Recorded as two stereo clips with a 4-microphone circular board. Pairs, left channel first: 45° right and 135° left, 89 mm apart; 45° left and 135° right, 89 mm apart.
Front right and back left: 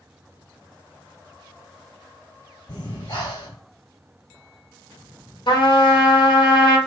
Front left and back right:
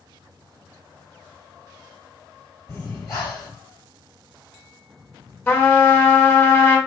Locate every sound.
2.7 s breathing: 10° right, 1.6 m
5.5 s a trumpet: 20° right, 1.0 m